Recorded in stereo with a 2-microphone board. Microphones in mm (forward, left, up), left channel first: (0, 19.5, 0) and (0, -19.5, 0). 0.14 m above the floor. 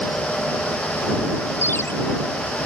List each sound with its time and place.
1.6 s a ringtone: 75° left (ahead or behind)